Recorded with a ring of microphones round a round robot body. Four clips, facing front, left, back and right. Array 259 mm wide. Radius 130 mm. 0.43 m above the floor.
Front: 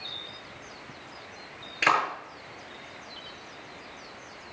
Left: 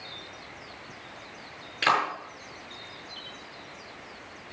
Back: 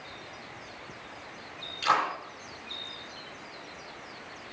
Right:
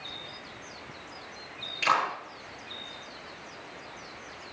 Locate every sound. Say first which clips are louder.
1.8 s a clap: left 1 dB, front 1 dB; 35° left, 6.5 m